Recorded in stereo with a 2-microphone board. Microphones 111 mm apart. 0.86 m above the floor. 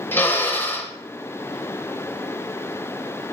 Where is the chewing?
No chewing in this recording.